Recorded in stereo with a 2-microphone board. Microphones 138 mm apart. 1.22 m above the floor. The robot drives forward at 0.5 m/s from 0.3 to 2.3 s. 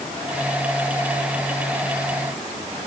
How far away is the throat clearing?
I don't hear throat clearing.